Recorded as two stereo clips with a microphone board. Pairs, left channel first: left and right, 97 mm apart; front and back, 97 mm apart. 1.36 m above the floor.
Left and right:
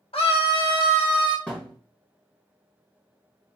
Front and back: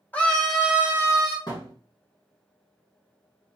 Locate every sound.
0.1 s a scream: 70° left, 1.1 m; by 1.4 s 130° left, 1.3 m
1.5 s a thud: 15° left, 1.5 m